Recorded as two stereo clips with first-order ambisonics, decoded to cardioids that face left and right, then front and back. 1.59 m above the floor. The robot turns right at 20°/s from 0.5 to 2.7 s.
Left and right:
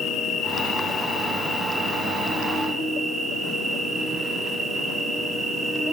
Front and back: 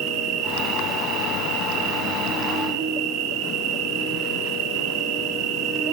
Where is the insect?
140° left, 5 m; by 5.9 s straight behind, 5 m.